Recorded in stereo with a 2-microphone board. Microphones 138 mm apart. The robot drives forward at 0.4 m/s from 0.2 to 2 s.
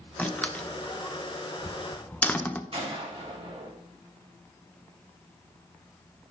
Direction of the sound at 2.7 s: 50° right (ahead or behind).